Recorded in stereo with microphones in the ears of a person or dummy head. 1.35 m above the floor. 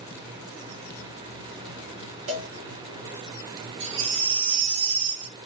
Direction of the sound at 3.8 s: 65° right (ahead or behind).